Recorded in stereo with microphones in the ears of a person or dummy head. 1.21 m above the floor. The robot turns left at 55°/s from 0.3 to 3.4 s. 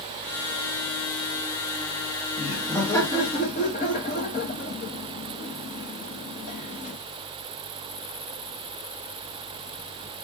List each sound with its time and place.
2.4 s laughter: 15° right (ahead or behind), 0.8 m; by 7.0 s 30° left (ahead or behind), 0.8 m